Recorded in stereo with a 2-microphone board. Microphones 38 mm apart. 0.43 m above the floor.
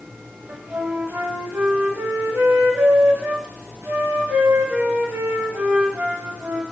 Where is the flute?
75° right (ahead or behind), 0.6 m.